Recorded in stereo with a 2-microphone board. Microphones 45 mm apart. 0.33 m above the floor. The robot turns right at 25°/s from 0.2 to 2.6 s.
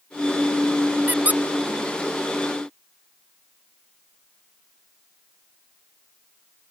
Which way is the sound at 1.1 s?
45° right (ahead or behind).